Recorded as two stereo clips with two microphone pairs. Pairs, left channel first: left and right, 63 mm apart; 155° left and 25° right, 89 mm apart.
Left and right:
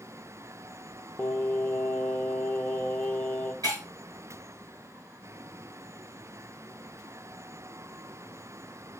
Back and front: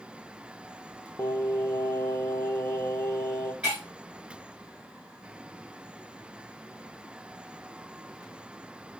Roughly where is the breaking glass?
Right.